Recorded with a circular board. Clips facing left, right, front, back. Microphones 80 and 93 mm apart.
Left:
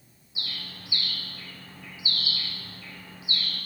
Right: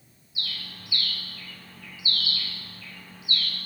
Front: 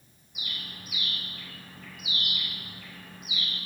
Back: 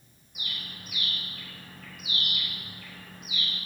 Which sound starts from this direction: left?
A bird, at 0.3 s.